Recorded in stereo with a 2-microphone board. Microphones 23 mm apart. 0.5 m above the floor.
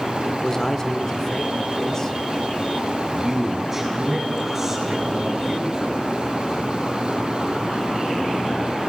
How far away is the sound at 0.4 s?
About 1.6 m.